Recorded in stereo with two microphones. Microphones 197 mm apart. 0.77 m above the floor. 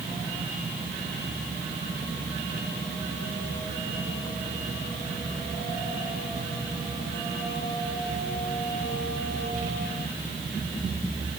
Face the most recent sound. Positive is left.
No sound to turn to.